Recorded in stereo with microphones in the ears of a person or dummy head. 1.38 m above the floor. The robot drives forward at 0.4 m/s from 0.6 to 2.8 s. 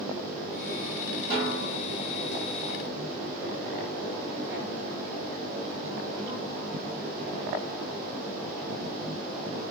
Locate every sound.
1.3 s a snare drum: 25° right (ahead or behind), 1.3 m